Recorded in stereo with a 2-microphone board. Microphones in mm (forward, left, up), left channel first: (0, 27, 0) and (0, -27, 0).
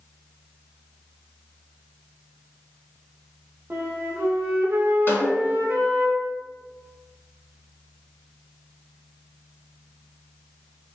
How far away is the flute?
About 0.5 m.